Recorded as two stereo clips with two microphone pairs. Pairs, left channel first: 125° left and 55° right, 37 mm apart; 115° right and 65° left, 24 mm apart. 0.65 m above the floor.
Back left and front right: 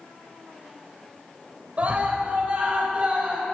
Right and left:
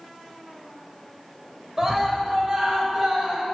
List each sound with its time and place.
1.8 s a scream: 5° right, 3 m; by 3.4 s 5° left, 4 m